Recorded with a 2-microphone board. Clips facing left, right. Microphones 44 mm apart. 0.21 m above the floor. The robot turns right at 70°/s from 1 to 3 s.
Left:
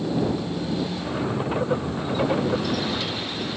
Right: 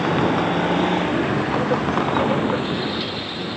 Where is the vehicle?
70° right (ahead or behind); by 3.6 s 15° right (ahead or behind).